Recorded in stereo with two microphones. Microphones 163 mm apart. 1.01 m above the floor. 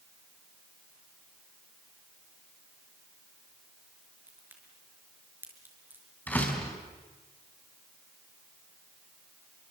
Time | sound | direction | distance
4.3 | a crack | 15° right (ahead or behind) | 5.5 m
6.3 | a door slam | 10° left (ahead or behind) | 5 m